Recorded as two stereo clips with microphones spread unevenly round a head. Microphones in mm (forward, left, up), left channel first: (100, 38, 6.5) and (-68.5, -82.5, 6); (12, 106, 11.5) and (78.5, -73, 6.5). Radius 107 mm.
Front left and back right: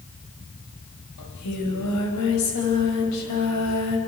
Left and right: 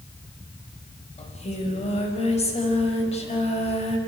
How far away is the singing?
About 5 m.